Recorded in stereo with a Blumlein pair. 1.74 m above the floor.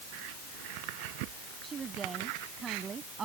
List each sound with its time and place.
1.6 s a woman speaking: 20° right